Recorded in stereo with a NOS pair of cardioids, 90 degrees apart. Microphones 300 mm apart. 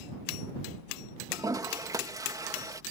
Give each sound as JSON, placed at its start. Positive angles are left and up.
{"t": 1.3, "sound": "a toilet flushing", "azimuth_deg": -10}